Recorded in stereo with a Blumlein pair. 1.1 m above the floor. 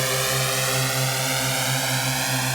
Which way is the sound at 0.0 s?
5° right.